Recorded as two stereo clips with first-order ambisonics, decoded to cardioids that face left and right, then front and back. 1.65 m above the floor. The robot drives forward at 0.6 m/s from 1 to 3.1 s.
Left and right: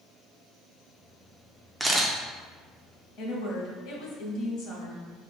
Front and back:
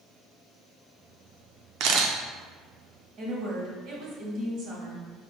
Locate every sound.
1.8 s a camera shutter: 175° right, 0.5 m
3.2 s a woman speaking: 135° left, 1.4 m